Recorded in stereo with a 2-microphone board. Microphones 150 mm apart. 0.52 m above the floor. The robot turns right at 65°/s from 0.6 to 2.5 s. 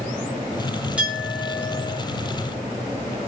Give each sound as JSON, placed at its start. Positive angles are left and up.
{"t": 1.0, "sound": "a clink", "azimuth_deg": -175, "distance_m": 4.0}